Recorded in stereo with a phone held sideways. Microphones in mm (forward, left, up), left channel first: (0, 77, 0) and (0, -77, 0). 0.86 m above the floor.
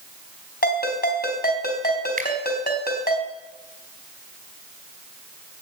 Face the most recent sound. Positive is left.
turn(degrees=-70)  # may be behind; listen again after turning